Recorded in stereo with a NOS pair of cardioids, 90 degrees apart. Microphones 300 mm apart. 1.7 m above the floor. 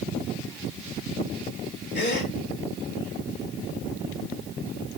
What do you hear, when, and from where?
1.9 s a gasp: 35° left, 4 m